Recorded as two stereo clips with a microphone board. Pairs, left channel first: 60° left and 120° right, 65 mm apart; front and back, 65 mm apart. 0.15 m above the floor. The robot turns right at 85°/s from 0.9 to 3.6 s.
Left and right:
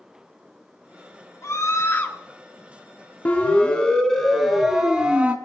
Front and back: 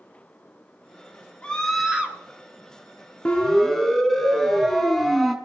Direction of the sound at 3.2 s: 45° left.